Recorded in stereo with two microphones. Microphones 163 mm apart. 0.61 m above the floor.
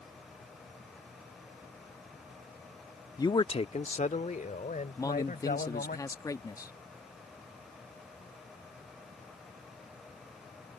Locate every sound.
3.2 s a man speaking: 20° left (ahead or behind); by 6.0 s 55° left (ahead or behind)
5.0 s a man speaking: 20° left (ahead or behind)